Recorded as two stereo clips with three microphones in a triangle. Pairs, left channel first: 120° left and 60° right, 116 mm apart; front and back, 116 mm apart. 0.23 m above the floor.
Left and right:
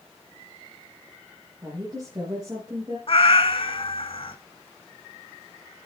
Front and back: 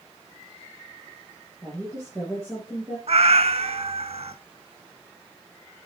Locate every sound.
1.6 s a woman speaking: 110° right, 5.5 m
3.1 s a cat meowing: 155° left, 0.6 m